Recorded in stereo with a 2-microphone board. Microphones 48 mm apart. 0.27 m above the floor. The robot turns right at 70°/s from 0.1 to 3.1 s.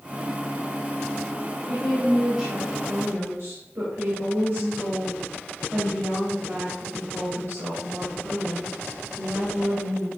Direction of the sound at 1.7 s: 135° left.